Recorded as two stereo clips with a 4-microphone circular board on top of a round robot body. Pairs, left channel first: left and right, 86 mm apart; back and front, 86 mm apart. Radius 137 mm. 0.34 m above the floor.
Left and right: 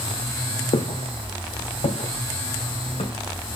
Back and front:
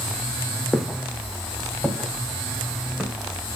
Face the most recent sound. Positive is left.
turn(degrees=85)